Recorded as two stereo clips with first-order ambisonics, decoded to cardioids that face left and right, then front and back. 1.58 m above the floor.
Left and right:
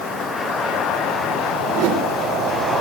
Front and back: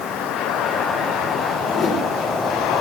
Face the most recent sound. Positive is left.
turn(degrees=-60)